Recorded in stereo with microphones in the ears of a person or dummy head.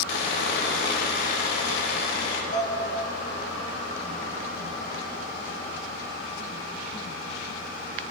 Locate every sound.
0.1 s sawing: 70° left (ahead or behind), 1.3 m
2.5 s dishes clattering: 50° left (ahead or behind), 1.8 m